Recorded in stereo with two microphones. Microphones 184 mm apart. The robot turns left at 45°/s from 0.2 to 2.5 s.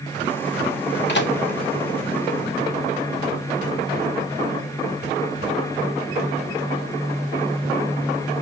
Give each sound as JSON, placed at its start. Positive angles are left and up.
{"t": 1.1, "sound": "a microwave", "side_deg": 70, "distance_m": 0.8}